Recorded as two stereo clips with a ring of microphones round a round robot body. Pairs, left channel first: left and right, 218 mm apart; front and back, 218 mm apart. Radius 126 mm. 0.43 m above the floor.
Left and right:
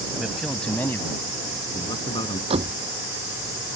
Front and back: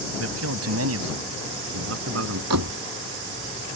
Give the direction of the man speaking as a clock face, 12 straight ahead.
6 o'clock.